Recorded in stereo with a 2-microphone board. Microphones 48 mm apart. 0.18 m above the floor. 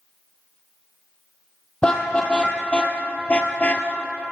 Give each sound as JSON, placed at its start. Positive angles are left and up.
{"t": 1.8, "sound": "a car horn", "side_deg": 20, "distance_m": 3.5}